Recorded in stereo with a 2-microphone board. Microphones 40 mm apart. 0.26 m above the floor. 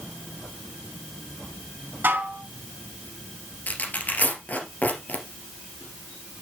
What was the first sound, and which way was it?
Dishes clattering, 60° right (ahead or behind).